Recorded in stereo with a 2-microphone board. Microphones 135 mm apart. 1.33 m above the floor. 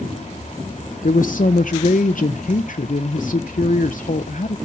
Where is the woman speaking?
75° left (ahead or behind), 0.6 m.